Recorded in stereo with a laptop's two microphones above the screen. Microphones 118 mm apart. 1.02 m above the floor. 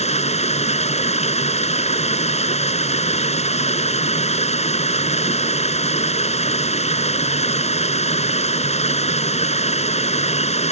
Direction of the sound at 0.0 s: 75° left (ahead or behind).